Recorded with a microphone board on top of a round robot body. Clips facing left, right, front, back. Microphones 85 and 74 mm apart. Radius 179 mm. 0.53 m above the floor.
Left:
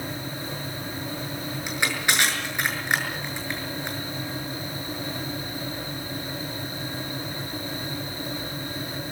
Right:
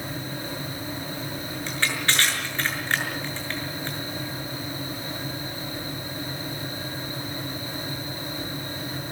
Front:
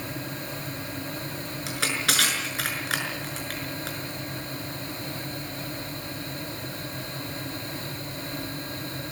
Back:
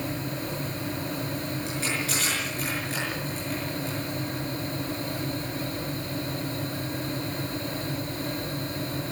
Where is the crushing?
15° left, 6.5 m.